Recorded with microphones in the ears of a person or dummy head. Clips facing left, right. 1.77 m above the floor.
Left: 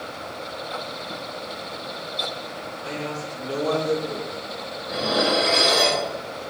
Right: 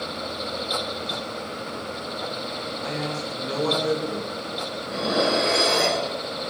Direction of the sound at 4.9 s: 45° right (ahead or behind).